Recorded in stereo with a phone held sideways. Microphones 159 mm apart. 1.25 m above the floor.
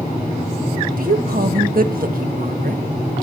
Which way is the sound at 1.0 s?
65° right (ahead or behind).